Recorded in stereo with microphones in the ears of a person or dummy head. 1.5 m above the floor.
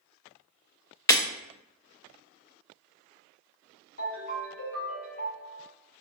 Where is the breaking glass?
25° left (ahead or behind), 0.7 m.